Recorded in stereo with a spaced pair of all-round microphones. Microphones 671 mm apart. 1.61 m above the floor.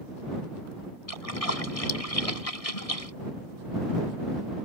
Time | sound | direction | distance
1.1 | a splash | 55° left (ahead or behind) | ?